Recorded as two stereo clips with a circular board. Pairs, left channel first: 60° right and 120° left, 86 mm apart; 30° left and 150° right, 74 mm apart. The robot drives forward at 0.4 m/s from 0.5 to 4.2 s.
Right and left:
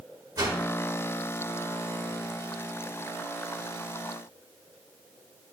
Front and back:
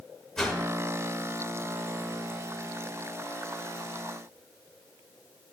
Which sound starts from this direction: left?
A whoosh, at 0.4 s.